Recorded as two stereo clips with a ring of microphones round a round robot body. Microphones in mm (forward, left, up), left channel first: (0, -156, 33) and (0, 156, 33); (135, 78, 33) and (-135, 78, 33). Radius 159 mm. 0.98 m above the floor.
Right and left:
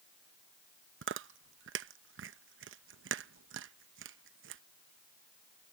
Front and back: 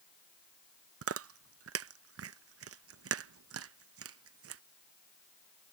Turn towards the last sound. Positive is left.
turn(degrees=145)